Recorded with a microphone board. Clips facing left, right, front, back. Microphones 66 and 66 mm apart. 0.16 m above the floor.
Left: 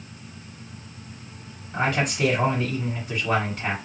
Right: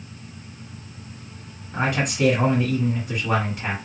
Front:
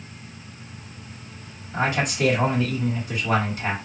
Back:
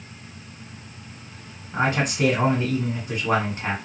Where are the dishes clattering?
I don't hear dishes clattering.